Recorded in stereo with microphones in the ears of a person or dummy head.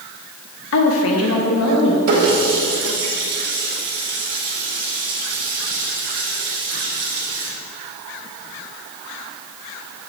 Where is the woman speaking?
70° left (ahead or behind), 0.8 m.